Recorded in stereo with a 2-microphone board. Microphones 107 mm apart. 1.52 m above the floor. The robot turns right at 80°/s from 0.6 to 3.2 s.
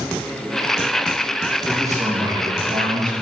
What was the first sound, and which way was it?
A man speaking, 170° right.